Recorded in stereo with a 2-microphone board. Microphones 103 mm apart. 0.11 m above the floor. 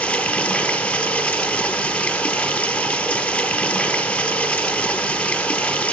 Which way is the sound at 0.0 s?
15° left (ahead or behind).